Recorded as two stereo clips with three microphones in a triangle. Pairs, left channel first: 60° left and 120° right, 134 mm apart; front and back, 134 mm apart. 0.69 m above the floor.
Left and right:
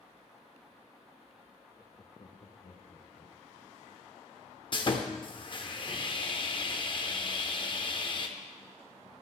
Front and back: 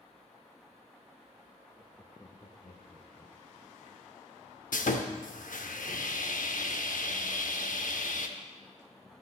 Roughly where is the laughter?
Behind.